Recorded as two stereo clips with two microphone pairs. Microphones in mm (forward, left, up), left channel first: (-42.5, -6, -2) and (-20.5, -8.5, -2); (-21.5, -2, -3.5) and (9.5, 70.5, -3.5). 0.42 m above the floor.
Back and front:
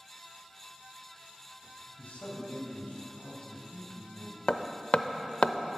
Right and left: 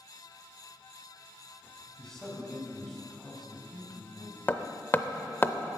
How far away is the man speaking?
About 2.5 m.